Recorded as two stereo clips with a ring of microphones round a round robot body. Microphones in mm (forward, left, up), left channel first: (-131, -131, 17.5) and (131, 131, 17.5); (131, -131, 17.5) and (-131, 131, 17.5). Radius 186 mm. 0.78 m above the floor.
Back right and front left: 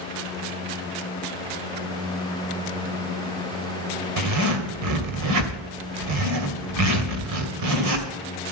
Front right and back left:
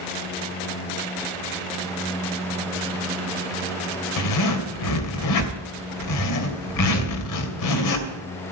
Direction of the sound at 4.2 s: Straight ahead.